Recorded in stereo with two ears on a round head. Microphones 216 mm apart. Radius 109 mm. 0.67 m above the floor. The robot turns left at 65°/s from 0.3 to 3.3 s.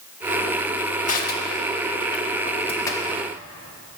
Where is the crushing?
30° left (ahead or behind), 1.3 m; by 3.2 s 5° right (ahead or behind), 1.3 m.